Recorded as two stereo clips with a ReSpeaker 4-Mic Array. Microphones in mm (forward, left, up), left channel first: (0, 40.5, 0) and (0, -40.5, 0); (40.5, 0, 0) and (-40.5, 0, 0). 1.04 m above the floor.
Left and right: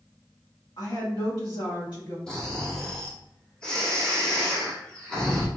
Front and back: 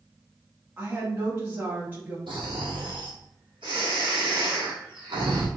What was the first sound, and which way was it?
A woman speaking, 115° left.